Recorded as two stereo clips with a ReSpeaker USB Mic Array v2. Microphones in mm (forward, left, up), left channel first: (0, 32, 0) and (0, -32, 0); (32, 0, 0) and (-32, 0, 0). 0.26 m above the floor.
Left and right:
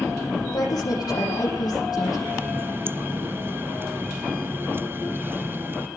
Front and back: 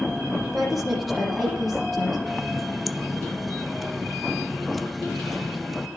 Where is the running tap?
90° right, 0.7 m.